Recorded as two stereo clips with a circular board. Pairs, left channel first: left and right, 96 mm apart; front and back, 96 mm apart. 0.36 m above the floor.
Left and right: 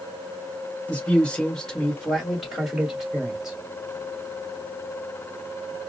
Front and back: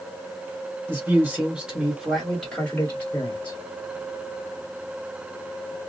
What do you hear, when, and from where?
0.9 s a man speaking: 150° left, 1.5 m; by 3.6 s 25° right, 1.5 m